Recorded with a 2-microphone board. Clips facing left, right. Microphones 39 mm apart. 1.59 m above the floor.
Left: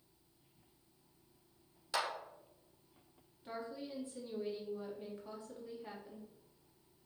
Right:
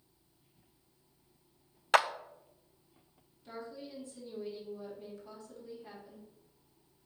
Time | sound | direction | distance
1.9 | a clap | 70° right (ahead or behind) | 0.6 m
3.5 | a woman speaking | 25° left (ahead or behind) | 3.5 m